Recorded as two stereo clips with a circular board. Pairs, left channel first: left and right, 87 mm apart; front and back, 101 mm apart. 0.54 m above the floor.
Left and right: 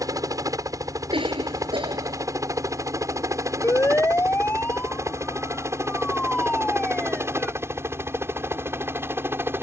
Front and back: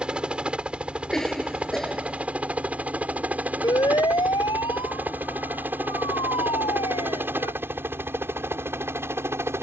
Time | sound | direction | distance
0.0 | a helicopter | 105° right | ?
1.1 | a cough | 85° right | ?
3.6 | a siren | 35° left | ?